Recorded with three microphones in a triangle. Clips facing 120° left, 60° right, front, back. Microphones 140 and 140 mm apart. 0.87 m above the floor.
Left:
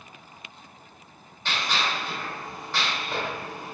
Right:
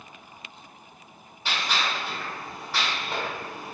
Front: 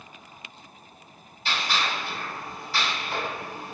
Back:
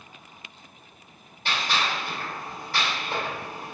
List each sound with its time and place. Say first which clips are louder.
1.4 s a gunshot: even, back 1 dB; 140° right, 1.6 m